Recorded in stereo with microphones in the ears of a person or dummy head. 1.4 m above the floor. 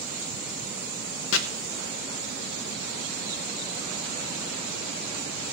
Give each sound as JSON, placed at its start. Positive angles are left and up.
{"t": 1.3, "sound": "chopping", "side_deg": 70, "distance_m": 1.0}